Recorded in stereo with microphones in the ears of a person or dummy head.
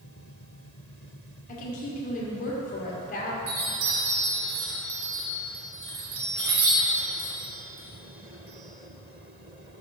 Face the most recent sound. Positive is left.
turn(degrees=-60)  # may be behind; listen again after turning